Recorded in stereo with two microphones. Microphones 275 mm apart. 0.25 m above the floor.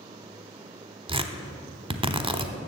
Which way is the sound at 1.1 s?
20° right (ahead or behind).